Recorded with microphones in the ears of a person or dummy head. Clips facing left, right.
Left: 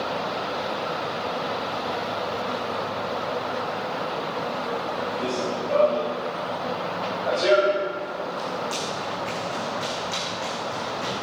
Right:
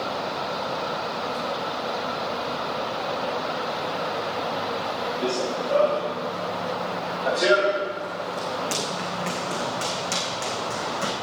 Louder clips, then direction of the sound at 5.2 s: Right 3 dB; centre (ahead or behind).